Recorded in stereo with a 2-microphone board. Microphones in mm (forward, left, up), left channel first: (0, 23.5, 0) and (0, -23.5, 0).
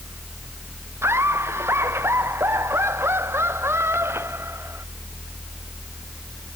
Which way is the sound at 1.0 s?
65° right (ahead or behind).